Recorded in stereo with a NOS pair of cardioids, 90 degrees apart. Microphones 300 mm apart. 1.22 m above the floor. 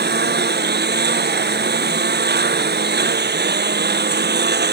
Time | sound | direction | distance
0.0 | a lawn mower | 30° right | ?